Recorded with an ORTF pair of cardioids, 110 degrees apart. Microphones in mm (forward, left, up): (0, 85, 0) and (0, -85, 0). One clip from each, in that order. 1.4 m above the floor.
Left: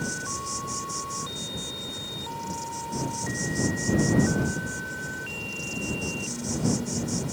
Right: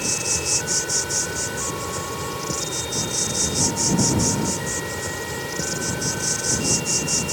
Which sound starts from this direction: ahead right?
An insect, at 0.0 s.